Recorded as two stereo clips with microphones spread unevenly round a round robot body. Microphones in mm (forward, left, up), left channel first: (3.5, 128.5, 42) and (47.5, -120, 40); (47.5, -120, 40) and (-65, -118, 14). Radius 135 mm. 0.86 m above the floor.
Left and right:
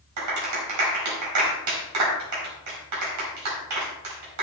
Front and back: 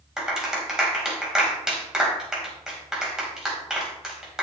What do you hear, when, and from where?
0.2 s a clap: 95° right, 4 m